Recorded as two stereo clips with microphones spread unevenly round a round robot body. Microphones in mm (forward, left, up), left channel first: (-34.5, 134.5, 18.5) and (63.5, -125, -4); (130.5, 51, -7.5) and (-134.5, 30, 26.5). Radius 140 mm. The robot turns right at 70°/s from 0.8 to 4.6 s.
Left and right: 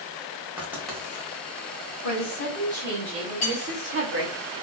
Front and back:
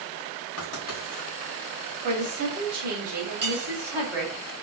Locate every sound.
0.6 s writing: 15° left, 1.4 m; by 1.3 s 50° left, 1.4 m
2.0 s a woman speaking: 125° left, 1.7 m; by 4.4 s 70° right, 1.7 m
3.4 s cutlery clinking: 135° left, 1.4 m; by 3.7 s 155° left, 1.4 m